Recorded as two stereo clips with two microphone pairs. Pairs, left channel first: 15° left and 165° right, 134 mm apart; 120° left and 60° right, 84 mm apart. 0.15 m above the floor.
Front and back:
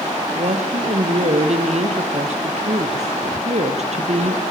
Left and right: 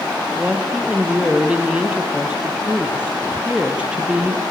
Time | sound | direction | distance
0.3 | a woman speaking | 135° right | 4 m